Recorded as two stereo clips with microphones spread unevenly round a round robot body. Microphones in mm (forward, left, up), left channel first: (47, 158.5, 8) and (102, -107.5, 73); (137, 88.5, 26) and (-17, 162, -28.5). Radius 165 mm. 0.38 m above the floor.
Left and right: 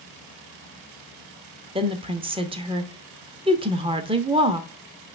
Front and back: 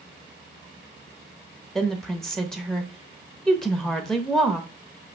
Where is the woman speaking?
155° right, 0.8 m.